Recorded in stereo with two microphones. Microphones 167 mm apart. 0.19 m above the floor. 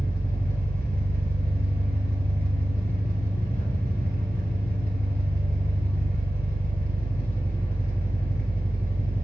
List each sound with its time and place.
0.0 s an engine running: 65° right (ahead or behind), 1.4 m